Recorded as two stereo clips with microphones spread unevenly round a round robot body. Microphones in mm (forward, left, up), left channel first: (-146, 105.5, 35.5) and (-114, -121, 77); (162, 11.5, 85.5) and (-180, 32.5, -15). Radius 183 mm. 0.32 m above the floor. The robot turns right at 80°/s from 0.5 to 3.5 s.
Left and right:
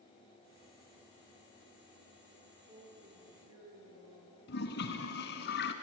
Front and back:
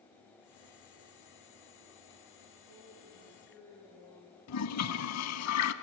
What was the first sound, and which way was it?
A woman speaking, 155° right.